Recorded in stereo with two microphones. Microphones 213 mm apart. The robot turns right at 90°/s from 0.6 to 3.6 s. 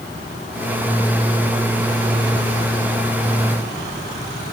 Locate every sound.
Only background noise.